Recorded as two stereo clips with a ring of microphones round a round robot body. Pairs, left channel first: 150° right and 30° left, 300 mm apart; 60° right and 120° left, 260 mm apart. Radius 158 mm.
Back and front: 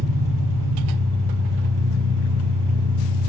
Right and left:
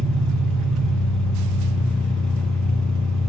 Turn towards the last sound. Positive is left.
turn(degrees=25)